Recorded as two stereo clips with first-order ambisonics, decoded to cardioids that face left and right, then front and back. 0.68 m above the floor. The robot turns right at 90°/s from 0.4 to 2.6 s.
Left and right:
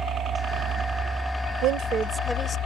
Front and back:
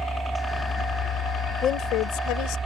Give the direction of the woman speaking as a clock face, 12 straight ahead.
2 o'clock.